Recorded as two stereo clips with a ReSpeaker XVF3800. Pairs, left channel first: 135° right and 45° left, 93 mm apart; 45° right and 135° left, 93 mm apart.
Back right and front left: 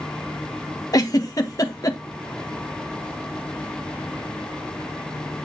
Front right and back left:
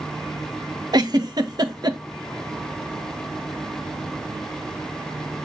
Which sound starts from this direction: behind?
A giggle, at 0.9 s.